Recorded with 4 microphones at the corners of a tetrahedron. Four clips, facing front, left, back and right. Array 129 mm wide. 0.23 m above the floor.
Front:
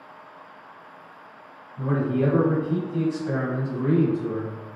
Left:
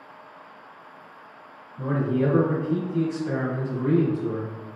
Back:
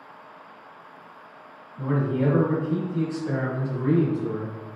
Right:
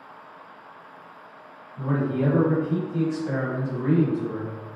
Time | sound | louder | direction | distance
1.8 | a man speaking | left 1 dB, front 1 dB | 90° right | 1.6 m